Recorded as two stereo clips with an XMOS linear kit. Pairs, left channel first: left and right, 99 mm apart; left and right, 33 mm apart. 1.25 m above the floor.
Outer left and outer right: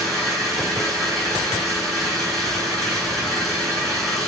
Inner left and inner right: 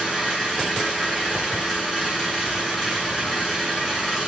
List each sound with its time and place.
0.0 s an engine running: centre (ahead or behind), 9.5 m